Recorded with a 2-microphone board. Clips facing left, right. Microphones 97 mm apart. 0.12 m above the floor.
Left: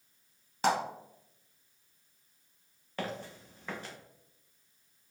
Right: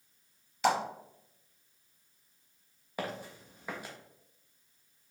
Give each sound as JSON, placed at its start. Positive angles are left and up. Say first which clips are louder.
{"t": 0.6, "sound": "a clap", "louder": "right 1 dB", "side_deg": 40, "distance_m": 1.9}
{"t": 3.0, "sound": "footsteps", "louder": "even", "side_deg": -10, "distance_m": 1.3}